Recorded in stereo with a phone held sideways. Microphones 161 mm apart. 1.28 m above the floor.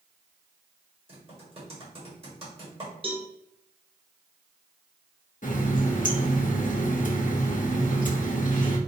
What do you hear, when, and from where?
1.1 s typing on a keyboard: 35° right (ahead or behind), 1.6 m
3.0 s a cowbell: 35° right (ahead or behind), 0.7 m
5.4 s a running tap: 55° left (ahead or behind), 0.6 m